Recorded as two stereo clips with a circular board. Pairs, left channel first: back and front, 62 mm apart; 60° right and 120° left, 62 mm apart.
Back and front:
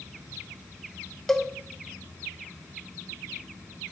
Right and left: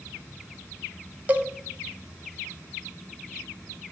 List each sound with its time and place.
1.3 s a cowbell: 100° left, 0.6 m